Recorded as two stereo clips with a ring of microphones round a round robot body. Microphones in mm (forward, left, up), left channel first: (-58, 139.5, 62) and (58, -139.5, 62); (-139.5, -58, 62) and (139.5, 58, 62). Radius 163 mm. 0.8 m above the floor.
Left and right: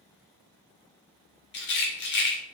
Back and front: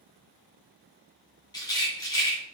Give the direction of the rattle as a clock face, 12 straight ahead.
8 o'clock.